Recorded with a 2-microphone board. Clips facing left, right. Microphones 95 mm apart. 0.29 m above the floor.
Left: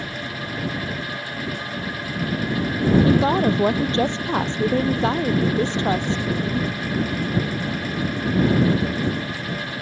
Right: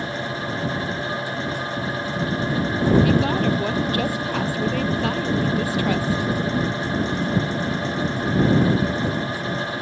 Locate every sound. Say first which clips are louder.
3.0 s a woman speaking: left 2 dB; 30° left (ahead or behind)